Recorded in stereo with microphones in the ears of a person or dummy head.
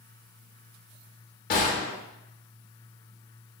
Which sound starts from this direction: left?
A gunshot, at 1.5 s.